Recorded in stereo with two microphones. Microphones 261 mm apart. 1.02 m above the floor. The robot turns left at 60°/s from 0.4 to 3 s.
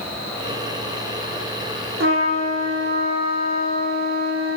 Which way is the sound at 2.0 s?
75° right.